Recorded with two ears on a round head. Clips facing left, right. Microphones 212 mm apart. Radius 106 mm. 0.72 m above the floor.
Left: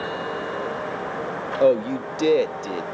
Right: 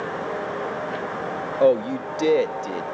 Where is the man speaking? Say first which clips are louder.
Even; 5° left (ahead or behind), 0.6 m.